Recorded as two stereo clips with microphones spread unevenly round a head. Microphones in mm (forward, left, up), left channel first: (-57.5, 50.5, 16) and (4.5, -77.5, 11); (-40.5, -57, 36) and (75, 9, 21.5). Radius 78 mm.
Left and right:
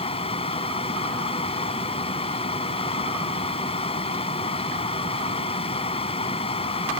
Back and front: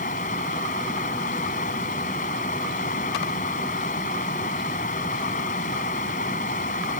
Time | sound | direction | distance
0.0 | running water | 165° left | ?